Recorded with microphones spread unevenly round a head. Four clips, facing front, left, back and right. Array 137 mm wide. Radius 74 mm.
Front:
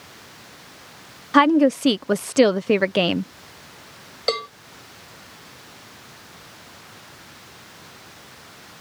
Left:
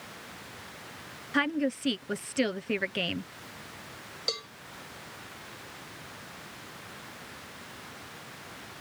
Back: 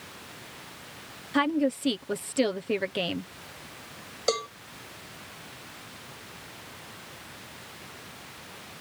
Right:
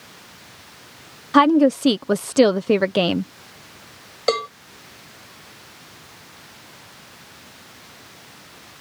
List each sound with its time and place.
1.3 s a woman speaking: 55° right
4.3 s a cowbell: 85° right